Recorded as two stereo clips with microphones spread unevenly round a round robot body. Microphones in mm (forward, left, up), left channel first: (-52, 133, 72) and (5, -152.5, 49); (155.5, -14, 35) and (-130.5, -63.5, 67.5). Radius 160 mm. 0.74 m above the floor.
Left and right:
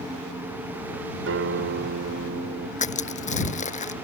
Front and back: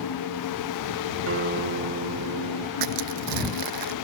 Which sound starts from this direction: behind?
Crushing, at 2.8 s.